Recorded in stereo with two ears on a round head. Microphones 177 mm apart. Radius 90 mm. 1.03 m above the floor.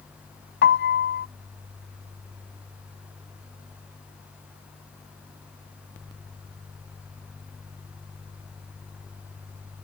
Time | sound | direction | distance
0.6 | a piano | 60° left (ahead or behind) | ?